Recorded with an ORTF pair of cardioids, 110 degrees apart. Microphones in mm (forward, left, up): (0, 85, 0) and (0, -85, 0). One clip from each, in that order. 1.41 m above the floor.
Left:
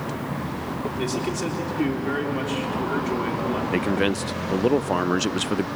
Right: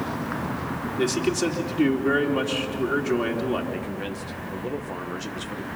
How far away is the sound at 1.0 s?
About 3.5 m.